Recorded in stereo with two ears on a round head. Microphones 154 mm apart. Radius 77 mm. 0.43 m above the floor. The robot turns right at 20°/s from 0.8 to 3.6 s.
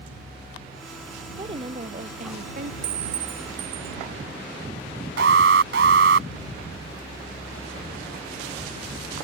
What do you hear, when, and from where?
1.3 s a woman speaking: 25° right (ahead or behind); by 2.7 s 55° right (ahead or behind)
2.8 s a clink: 35° right (ahead or behind); by 4.0 s 25° right (ahead or behind)
5.2 s an alarm: 70° right (ahead or behind)